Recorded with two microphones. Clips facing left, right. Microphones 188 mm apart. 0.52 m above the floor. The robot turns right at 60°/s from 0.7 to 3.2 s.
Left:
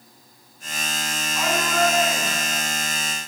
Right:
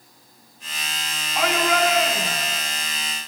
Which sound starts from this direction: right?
A shout, at 1.4 s.